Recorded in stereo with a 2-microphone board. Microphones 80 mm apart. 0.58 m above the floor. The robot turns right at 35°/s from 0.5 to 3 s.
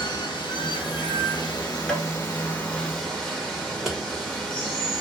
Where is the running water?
90° left, 1.0 m; by 5.0 s 175° left, 1.0 m.